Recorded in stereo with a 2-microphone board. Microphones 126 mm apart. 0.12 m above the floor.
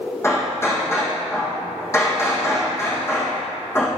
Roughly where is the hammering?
Centre.